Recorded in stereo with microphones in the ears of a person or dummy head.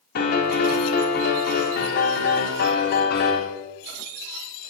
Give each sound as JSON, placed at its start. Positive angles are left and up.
{"t": 0.1, "sound": "a piano", "side_deg": 55, "distance_m": 4.0}